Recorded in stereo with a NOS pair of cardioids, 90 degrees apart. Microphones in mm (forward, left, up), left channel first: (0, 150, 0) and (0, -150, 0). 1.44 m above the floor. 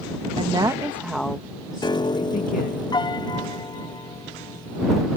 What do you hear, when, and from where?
0.4 s a woman speaking: 20° right; by 2.8 s 35° left
1.8 s a piano: 15° left